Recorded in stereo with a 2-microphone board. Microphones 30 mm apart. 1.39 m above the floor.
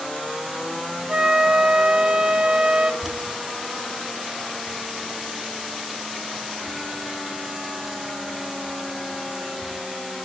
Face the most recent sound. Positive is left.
turn(degrees=-15)  # may be behind; listen again after turning